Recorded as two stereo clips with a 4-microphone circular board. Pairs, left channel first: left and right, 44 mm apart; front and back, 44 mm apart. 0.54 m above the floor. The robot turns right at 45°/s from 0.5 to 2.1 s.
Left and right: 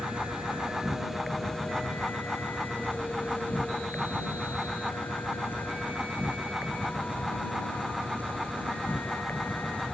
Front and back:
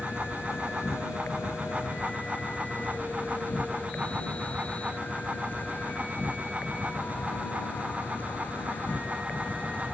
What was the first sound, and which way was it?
An insect, 25° right.